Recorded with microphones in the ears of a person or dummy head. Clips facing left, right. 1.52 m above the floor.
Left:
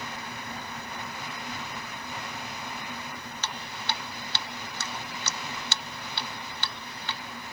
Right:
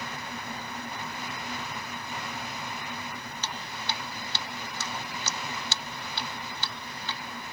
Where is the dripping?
50° left (ahead or behind).